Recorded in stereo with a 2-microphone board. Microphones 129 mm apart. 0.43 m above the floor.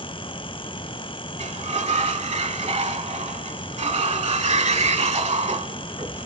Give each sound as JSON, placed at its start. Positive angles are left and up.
{"t": 1.4, "sound": "a sliding door", "side_deg": -55, "distance_m": 0.9}